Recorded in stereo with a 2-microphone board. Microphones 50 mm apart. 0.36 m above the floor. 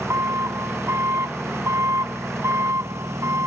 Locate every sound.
0.0 s an engine running: 85° right